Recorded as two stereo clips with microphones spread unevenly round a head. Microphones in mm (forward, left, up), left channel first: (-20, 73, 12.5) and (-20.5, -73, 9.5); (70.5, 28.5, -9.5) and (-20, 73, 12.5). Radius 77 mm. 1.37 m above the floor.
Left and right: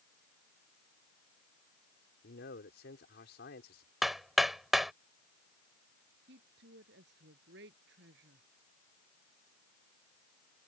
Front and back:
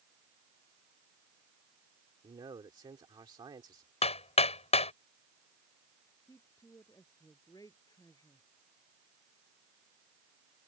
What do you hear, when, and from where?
2.2 s a man speaking: 105° left
4.0 s hammering: straight ahead
6.3 s a woman speaking: 100° right